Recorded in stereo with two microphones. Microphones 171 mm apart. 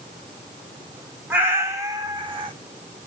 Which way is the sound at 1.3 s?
10° right (ahead or behind).